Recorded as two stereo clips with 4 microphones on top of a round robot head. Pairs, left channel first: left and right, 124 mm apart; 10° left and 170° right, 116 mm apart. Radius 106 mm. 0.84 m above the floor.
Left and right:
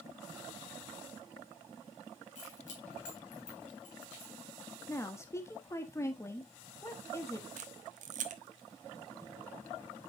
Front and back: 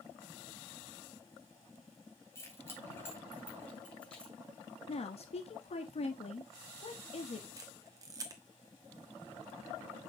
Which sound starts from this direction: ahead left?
A woman speaking, at 4.9 s.